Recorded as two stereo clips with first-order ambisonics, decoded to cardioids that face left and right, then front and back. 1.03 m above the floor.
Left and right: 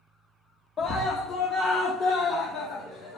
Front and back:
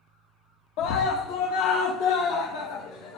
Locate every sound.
0.8 s a scream: 20° left, 0.8 m; by 3.2 s 5° left, 2.5 m